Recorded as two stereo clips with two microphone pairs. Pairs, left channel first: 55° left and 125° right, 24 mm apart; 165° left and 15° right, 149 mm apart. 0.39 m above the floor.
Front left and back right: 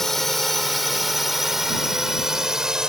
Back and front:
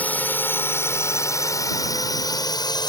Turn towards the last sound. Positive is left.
turn(degrees=-160)